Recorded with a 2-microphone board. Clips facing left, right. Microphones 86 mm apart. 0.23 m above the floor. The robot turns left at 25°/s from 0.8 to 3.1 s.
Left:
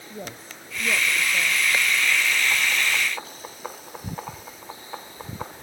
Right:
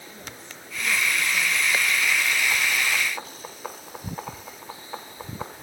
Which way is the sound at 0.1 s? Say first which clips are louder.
Left 9 dB; 45° left (ahead or behind).